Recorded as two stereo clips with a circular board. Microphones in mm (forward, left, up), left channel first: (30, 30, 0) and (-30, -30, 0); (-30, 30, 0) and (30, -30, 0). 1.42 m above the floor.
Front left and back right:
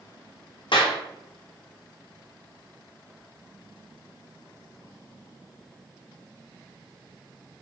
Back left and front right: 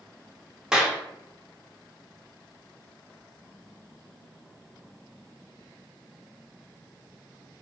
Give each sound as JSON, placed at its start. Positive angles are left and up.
{"t": 0.7, "sound": "a clap", "azimuth_deg": 40, "distance_m": 0.5}